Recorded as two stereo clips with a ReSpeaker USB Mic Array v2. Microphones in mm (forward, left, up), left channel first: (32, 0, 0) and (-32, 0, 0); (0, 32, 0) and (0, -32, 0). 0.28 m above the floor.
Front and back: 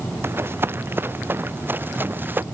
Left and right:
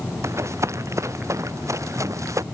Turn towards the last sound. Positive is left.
turn(degrees=-125)